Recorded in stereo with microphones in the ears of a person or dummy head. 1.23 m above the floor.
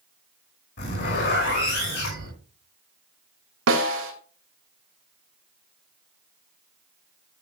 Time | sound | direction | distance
0.8 | a zipper | 55° left (ahead or behind) | 6 m
3.7 | a snare drum | 65° right (ahead or behind) | 2.5 m